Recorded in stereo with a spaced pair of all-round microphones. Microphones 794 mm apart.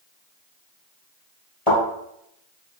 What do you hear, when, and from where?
1.7 s a thud: 40° left (ahead or behind), 2 m